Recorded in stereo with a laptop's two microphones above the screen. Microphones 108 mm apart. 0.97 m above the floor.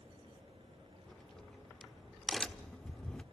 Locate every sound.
0.0 s a fan: 55° right (ahead or behind), 9 m
1.1 s a crack: 5° left (ahead or behind), 1.1 m